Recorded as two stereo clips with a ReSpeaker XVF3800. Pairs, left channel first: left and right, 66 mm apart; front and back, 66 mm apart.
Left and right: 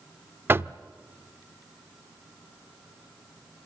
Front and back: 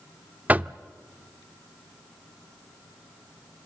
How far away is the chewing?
I don't hear chewing.